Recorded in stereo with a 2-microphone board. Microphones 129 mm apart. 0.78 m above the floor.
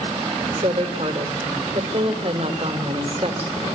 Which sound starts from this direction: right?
A woman speaking, at 0.5 s.